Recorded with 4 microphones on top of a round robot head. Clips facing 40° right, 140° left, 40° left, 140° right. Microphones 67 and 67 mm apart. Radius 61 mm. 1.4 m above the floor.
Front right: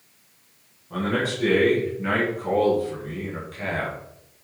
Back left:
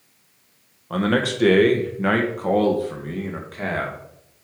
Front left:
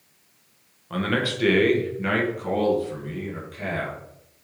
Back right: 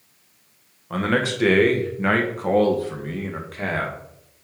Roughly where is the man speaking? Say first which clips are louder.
Back left 4 dB, back right 3 dB; behind left.